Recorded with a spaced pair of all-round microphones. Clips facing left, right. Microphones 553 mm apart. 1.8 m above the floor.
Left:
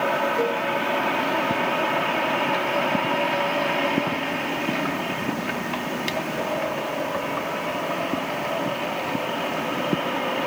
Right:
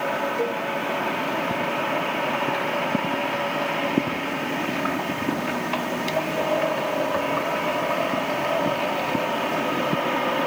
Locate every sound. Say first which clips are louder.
0.4 s a cowbell: left 2 dB; 20° right (ahead or behind), 1.3 m